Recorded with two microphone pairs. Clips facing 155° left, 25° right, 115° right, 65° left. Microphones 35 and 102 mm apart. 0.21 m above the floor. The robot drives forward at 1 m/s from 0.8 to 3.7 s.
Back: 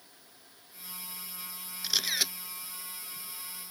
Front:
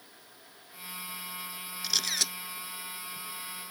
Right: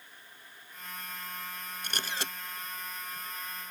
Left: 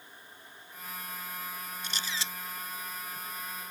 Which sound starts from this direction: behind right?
A camera shutter, at 1.8 s.